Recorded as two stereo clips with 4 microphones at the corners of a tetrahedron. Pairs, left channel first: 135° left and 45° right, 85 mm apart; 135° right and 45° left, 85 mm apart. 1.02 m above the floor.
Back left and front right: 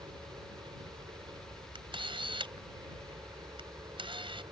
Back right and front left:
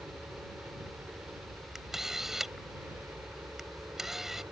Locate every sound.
0.0 s a helicopter: 20° right
1.8 s a camera shutter: 40° right